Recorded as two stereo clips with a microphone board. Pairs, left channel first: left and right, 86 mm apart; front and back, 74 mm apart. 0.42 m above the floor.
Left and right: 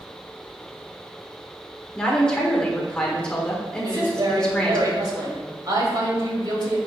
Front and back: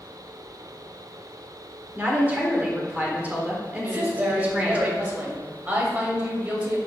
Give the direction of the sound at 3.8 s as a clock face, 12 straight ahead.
4 o'clock.